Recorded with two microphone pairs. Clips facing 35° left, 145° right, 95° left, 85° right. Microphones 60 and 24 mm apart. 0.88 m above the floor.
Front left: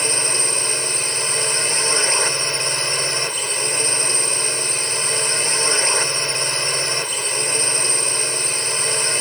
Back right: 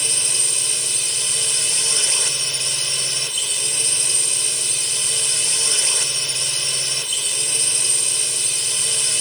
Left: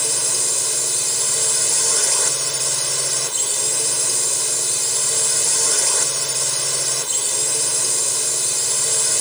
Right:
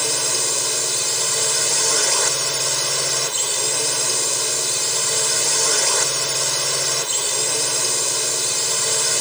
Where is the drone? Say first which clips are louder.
Front left 6 dB, right 1 dB; 10° right.